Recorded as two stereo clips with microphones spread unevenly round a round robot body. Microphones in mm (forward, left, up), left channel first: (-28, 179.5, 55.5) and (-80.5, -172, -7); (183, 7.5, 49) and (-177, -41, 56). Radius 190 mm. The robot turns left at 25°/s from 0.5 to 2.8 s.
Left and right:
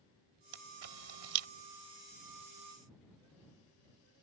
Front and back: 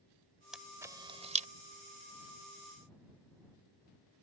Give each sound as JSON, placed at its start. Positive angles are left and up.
{"t": 0.5, "sound": "a camera shutter", "azimuth_deg": -85}